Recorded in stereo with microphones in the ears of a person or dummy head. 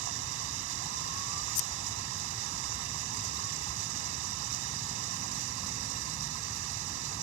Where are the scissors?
75° left (ahead or behind).